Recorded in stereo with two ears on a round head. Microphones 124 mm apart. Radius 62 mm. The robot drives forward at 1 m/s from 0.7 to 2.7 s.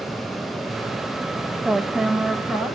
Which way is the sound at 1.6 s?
5° right (ahead or behind).